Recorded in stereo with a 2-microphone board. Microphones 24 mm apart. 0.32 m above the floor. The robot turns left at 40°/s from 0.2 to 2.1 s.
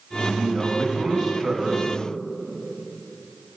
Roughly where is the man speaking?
Right.